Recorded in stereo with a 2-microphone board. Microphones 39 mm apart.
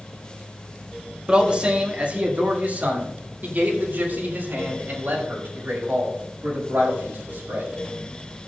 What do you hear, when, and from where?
1.3 s a man speaking: 30° right (ahead or behind), 1.6 m; by 7.7 s 65° right (ahead or behind), 5.5 m